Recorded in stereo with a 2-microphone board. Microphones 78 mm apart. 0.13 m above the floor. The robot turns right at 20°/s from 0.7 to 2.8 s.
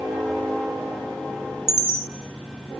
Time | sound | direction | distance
1.7 | a chime | 50° right (ahead or behind) | 1.8 m